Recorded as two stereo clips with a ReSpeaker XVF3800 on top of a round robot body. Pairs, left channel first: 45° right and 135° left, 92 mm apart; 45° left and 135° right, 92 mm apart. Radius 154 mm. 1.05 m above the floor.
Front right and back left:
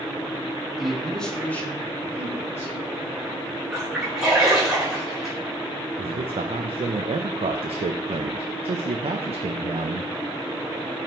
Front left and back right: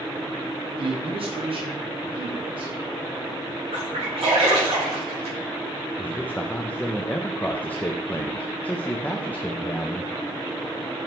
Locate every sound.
0.8 s a man speaking: 140° right, 2.0 m; by 2.8 s 105° right, 4 m
3.7 s a splash: 140° right, 4 m
6.0 s a man speaking: 120° left, 0.6 m